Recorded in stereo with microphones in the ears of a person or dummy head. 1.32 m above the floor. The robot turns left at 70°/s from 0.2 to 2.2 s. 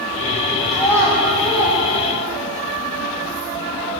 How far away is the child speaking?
About 2.5 m.